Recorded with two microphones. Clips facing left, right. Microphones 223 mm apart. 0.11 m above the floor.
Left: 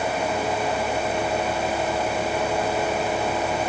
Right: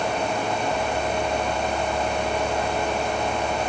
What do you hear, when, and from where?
Only background noise.